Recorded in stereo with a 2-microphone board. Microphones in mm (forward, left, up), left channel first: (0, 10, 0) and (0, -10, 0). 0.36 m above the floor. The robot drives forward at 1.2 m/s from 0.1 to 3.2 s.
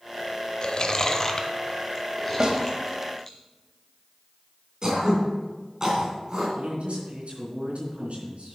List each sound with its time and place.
0.6 s chewing: 40° left (ahead or behind), 0.7 m; by 3.4 s 10° left (ahead or behind), 3.5 m
2.4 s a snare drum: 40° right (ahead or behind), 1.4 m; by 2.6 s 45° right (ahead or behind), 1.3 m
4.8 s throat clearing: 30° right (ahead or behind), 3 m
6.6 s a man speaking: 70° right (ahead or behind), 3 m